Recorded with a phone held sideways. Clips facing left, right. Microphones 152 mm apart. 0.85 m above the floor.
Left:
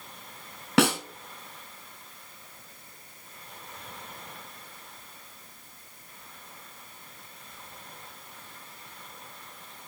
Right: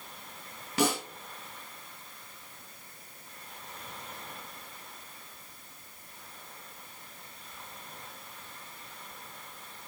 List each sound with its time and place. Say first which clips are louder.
0.8 s a snare drum: left 5 dB; 75° left (ahead or behind), 2 m